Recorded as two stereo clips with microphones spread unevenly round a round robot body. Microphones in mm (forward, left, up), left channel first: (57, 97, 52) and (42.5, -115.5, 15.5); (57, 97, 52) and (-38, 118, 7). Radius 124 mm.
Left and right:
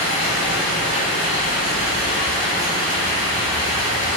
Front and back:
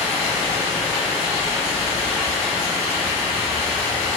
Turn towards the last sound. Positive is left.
turn(degrees=-160)